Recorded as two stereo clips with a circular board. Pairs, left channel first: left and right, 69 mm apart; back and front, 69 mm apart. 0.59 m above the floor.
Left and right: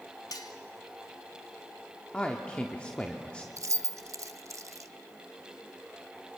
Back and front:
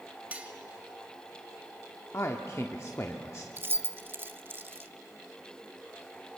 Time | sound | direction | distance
0.3 | cutlery clinking | 70° left | 1.5 m
2.1 | a man speaking | 160° left | 1.1 m
3.6 | keys jangling | 55° right | 0.6 m